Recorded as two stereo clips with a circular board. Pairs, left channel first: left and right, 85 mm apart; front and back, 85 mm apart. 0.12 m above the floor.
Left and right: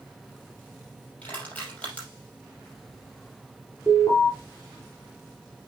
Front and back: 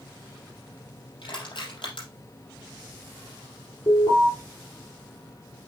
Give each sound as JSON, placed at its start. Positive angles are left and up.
{"t": 1.2, "sound": "crushing", "azimuth_deg": 15, "distance_m": 5.0}
{"t": 3.9, "sound": "an alarm", "azimuth_deg": -10, "distance_m": 3.5}